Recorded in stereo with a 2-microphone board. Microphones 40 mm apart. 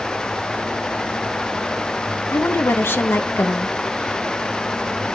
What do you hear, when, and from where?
2.3 s a woman speaking: 75° left (ahead or behind), 1.8 m